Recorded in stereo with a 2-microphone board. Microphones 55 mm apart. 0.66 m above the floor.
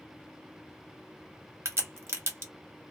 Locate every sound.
1.6 s a crack: 55° right (ahead or behind), 1.1 m